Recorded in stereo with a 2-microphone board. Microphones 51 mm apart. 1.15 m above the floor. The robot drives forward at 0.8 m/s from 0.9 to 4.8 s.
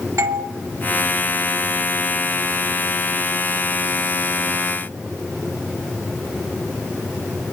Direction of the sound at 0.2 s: 70° right (ahead or behind).